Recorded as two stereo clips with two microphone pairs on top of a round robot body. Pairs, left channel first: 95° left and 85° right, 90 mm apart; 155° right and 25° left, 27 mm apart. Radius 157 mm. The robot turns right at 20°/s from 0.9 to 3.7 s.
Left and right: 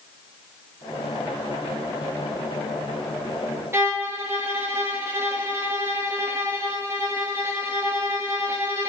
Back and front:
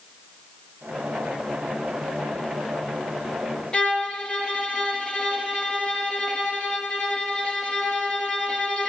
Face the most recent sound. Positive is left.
turn(degrees=-110)